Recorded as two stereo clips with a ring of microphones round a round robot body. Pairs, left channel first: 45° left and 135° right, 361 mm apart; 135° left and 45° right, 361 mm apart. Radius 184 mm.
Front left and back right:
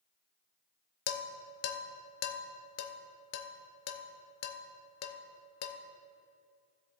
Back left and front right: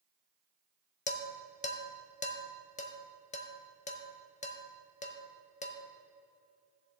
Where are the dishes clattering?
70° left, 0.8 m.